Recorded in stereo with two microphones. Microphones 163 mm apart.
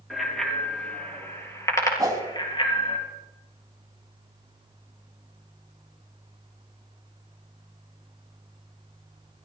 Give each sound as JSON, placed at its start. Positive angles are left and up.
{"t": 0.1, "sound": "a bicycle bell", "side_deg": 0, "distance_m": 4.0}
{"t": 2.0, "sound": "a whoosh", "side_deg": -25, "distance_m": 2.0}